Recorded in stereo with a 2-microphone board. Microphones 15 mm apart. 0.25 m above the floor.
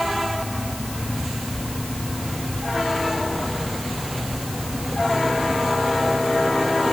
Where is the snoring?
I don't hear snoring.